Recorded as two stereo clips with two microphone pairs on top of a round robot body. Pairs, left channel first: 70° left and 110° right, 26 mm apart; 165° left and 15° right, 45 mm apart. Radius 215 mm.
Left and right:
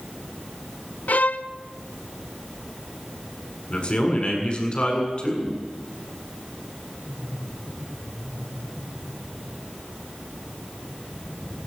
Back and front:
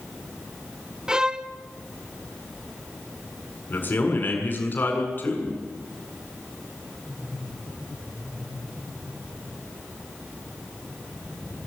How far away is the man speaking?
About 7.5 m.